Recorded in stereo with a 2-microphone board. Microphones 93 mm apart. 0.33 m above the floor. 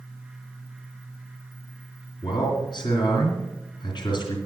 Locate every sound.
2.2 s a man speaking: 55° left (ahead or behind), 3 m